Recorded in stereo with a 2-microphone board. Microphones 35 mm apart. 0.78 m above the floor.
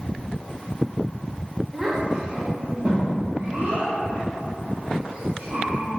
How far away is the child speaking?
About 0.7 m.